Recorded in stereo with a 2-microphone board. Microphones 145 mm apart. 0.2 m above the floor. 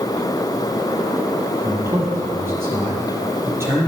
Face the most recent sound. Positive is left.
turn(degrees=-20)  # may be behind; listen again after turning